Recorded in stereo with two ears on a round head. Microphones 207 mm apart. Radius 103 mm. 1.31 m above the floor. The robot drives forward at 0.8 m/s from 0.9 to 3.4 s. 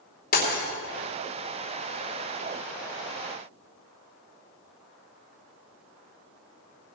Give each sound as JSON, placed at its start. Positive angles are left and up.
{"t": 0.3, "sound": "breaking glass", "side_deg": 40, "distance_m": 2.5}